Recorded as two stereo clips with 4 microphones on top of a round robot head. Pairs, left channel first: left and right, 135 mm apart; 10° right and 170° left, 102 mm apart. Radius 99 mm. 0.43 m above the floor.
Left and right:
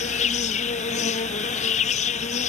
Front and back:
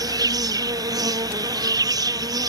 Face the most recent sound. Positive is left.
turn(degrees=120)